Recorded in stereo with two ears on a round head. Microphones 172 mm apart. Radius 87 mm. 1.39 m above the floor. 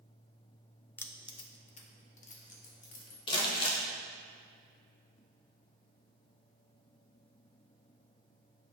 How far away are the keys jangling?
About 0.5 m.